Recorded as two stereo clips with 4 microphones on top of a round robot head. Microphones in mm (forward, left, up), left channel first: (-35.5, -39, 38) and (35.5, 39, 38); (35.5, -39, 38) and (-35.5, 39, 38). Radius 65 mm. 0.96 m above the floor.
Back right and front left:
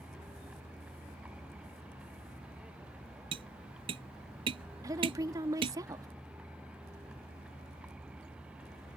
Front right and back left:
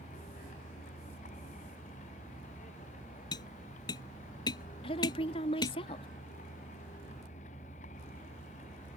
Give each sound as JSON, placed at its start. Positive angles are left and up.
{"t": 0.0, "sound": "a vehicle", "azimuth_deg": -35}
{"t": 3.3, "sound": "tapping", "azimuth_deg": 5}
{"t": 4.8, "sound": "a woman speaking", "azimuth_deg": -10}